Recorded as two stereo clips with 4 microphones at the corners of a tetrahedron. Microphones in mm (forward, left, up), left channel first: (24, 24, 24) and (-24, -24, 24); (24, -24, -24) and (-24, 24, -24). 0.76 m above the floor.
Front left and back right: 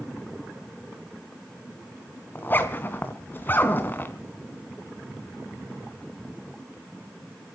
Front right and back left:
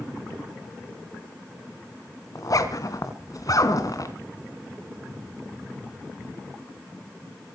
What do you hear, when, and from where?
2.4 s a zipper: 15° right, 3 m